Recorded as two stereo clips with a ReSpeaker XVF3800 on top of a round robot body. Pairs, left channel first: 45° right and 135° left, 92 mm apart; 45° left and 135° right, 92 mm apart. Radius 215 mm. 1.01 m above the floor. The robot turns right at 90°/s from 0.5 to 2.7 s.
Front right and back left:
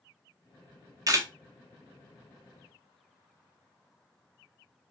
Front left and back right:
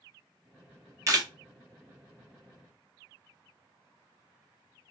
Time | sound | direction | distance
1.1 | a camera shutter | 175° left | 1.0 m